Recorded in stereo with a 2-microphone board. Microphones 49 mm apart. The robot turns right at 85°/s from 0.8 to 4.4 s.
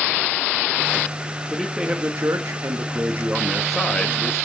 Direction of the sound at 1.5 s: 170° left.